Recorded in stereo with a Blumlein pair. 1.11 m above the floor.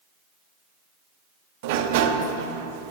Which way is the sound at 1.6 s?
50° right.